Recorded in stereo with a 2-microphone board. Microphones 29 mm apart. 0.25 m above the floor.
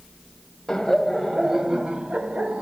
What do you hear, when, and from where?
0.7 s laughter: 15° left (ahead or behind), 0.9 m; by 2.6 s 45° right (ahead or behind), 1.4 m